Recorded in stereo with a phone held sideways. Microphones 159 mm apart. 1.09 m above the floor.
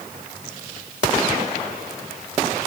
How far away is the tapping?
No tapping in this recording.